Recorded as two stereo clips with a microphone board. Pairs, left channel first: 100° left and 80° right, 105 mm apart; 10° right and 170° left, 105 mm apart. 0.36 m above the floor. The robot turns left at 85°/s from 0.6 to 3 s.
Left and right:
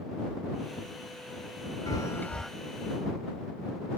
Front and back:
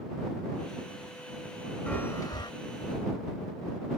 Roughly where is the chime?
Ahead left.